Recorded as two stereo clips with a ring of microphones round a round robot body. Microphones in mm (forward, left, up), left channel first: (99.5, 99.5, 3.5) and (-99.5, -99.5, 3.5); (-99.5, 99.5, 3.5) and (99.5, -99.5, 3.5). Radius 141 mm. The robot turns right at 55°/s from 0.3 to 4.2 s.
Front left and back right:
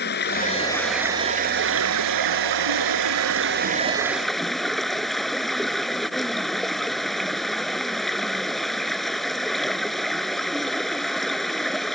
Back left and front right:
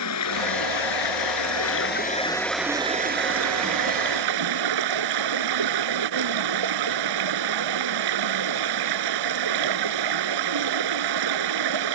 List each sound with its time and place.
0.0 s running water: 100° left; by 12.0 s 45° right